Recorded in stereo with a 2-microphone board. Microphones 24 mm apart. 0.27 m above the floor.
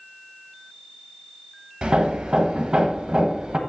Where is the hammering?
40° right (ahead or behind), 0.8 m.